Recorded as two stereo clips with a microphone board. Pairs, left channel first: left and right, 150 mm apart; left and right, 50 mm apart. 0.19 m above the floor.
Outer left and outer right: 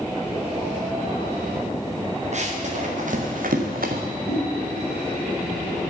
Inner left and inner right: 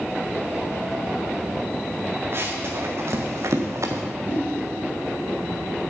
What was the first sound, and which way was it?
Running footsteps, 50° right (ahead or behind).